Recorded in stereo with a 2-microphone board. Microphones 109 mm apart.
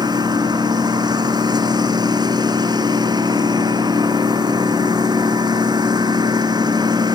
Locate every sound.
0.0 s a lawn mower: 40° right (ahead or behind)